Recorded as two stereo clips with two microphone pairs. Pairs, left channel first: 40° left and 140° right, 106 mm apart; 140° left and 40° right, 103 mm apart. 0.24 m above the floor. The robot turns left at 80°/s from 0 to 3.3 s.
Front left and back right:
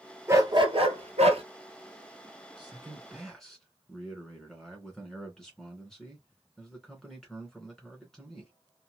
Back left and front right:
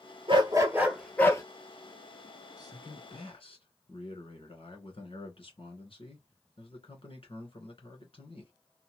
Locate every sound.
0.3 s a dog barking: 75° right, 1.1 m; by 1.4 s 165° right, 1.1 m
2.6 s a man speaking: 175° right, 2.5 m; by 8.5 s 125° left, 2.5 m